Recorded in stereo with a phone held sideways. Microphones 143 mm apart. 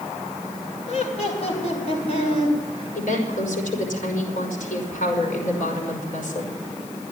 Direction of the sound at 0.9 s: 50° left (ahead or behind).